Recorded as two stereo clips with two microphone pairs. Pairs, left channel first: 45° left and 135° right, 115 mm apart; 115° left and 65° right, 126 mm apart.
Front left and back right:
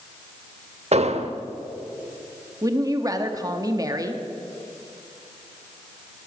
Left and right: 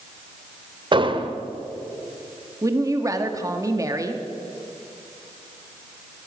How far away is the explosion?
About 0.8 m.